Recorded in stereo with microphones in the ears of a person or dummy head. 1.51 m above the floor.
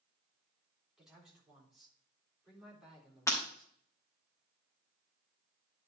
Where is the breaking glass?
20° left (ahead or behind), 2.5 m.